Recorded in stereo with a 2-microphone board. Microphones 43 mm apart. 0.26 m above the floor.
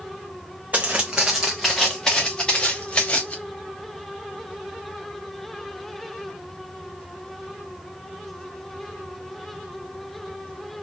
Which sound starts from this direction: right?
Footsteps, at 0.7 s.